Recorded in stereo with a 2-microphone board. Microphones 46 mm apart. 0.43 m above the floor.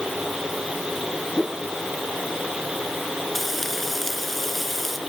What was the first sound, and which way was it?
A whoosh, 5° left (ahead or behind).